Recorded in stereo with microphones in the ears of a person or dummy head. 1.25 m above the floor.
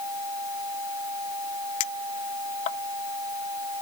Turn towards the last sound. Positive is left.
turn(degrees=30)  # may be behind; listen again after turning